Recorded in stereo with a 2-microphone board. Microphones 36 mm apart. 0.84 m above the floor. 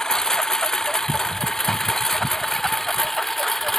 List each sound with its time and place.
0.0 s a lawn mower: 15° left (ahead or behind); by 3.8 s 10° left (ahead or behind)